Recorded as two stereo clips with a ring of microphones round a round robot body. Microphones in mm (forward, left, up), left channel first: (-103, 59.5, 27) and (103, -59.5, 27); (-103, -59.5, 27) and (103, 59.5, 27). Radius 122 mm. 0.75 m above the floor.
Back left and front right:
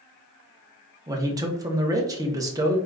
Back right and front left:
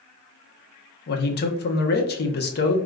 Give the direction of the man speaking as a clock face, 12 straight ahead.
3 o'clock.